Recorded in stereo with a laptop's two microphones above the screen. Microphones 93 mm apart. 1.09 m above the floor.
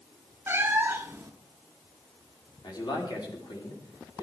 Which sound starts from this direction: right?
A cat meowing, at 0.5 s.